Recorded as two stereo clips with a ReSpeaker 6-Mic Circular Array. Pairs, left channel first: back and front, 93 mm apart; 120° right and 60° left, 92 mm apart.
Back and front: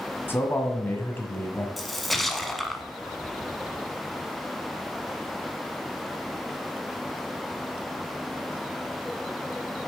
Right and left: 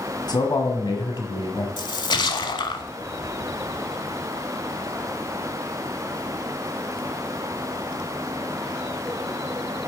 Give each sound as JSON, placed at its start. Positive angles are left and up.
{"t": 0.3, "sound": "a man speaking", "azimuth_deg": -125, "distance_m": 1.6}
{"t": 1.8, "sound": "a splash", "azimuth_deg": -90, "distance_m": 0.7}